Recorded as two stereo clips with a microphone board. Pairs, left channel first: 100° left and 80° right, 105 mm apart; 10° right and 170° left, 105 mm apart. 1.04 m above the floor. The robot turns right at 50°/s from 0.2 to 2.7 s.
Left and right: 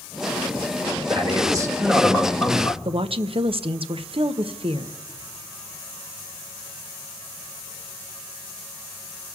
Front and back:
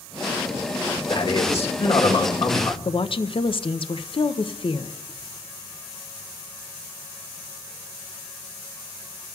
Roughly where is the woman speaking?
Ahead right.